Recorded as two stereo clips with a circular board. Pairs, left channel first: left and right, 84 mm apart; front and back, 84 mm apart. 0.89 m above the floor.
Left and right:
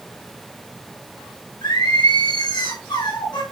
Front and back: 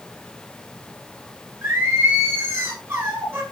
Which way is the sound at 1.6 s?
120° left.